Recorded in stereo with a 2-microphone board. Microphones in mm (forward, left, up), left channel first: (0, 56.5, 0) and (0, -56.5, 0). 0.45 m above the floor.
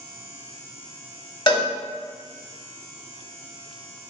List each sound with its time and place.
1.5 s a cowbell: 45° left (ahead or behind), 0.6 m